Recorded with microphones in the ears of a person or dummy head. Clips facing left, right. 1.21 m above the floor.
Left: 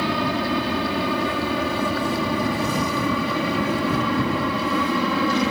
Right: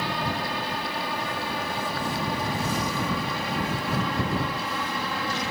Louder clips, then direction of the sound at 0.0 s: Left 7 dB; 65° left (ahead or behind).